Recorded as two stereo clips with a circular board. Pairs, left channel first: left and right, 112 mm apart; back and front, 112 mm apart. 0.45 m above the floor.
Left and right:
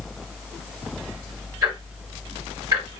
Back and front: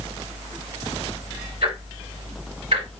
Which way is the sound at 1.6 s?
25° right.